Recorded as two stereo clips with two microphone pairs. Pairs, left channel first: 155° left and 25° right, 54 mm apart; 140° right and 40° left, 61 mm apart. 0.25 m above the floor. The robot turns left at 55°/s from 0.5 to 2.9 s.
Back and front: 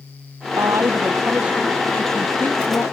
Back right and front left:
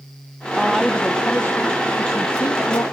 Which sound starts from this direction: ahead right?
A woman speaking, at 0.6 s.